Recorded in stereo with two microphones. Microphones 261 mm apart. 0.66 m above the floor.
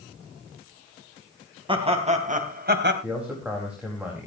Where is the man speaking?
5° right (ahead or behind), 4 m.